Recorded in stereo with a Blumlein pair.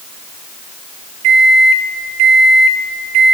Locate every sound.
1.2 s a microwave: 40° right, 0.6 m